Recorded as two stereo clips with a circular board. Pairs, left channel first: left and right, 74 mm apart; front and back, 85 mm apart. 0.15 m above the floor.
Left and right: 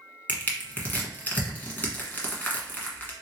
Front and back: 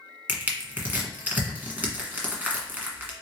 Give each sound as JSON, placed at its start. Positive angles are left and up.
{"t": 0.3, "sound": "crushing", "azimuth_deg": 130, "distance_m": 1.2}